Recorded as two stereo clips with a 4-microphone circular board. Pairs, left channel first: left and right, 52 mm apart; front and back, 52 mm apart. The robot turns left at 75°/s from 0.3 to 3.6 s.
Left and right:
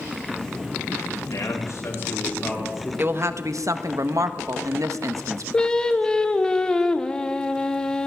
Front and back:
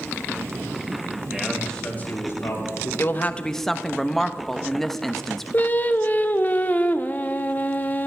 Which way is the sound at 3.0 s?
40° right.